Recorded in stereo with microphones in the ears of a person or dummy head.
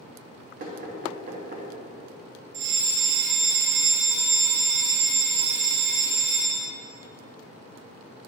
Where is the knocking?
50° right (ahead or behind), 1.2 m.